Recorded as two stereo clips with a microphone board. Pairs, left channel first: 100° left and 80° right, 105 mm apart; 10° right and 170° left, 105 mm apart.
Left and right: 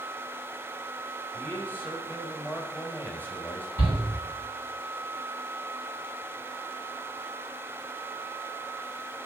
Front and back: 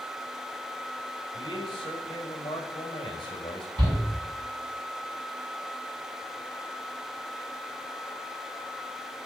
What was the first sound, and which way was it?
A man speaking, 30° left.